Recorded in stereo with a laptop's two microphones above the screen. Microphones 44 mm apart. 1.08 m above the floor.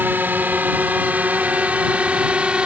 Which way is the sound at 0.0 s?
45° right (ahead or behind).